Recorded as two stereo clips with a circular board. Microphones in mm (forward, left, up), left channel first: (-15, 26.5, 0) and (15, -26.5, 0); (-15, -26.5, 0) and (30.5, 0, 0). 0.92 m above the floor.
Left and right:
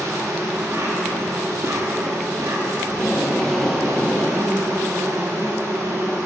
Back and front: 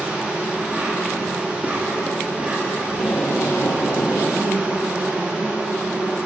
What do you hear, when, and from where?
0.0 s an insect: 35° right, 1.7 m
2.9 s tape being pulled: 155° right, 1.3 m